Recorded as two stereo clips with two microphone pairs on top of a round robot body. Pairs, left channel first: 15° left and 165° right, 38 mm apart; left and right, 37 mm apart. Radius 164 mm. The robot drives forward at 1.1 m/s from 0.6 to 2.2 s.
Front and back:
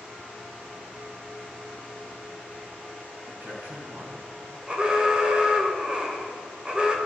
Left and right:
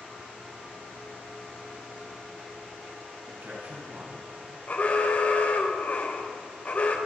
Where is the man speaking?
125° right, 6.5 m.